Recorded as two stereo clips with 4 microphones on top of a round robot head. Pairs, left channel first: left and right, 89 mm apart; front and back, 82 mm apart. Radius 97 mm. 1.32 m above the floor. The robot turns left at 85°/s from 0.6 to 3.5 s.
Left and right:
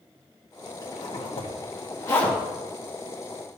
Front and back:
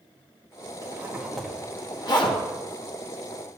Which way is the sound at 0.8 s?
140° left.